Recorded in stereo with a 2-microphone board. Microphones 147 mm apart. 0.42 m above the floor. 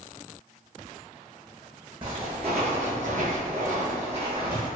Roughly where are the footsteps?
Right.